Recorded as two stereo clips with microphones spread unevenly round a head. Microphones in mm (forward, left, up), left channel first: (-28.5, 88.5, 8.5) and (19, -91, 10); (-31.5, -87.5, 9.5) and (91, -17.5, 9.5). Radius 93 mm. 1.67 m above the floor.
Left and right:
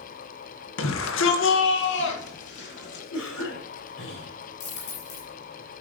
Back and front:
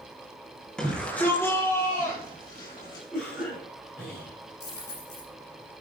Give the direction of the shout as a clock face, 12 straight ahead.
8 o'clock.